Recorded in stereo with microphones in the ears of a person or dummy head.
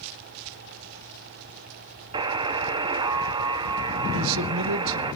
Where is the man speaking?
75° right (ahead or behind), 1.6 m.